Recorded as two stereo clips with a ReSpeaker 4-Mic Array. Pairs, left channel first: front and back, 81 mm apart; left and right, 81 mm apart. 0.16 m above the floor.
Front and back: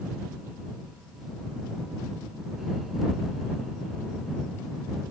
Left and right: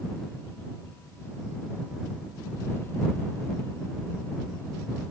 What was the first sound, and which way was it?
Only background noise.